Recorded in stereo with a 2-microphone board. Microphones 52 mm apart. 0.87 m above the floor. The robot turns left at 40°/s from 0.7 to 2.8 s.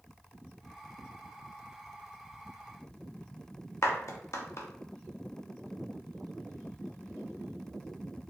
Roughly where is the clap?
Left.